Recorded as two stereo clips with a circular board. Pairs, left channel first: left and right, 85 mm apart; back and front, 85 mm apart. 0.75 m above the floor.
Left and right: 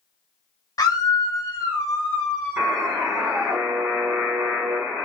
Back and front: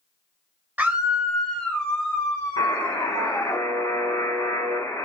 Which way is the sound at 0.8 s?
60° left.